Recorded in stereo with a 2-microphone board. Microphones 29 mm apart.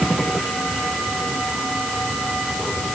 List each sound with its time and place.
Only background noise.